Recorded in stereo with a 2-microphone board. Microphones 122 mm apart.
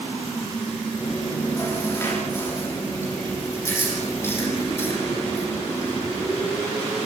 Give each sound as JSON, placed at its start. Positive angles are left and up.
{"t": 1.0, "sound": "chewing", "side_deg": 20, "distance_m": 10.0}